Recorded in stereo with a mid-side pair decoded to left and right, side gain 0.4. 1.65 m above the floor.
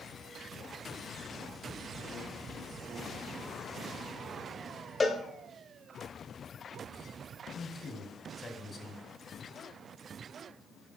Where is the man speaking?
45° left, 3 m.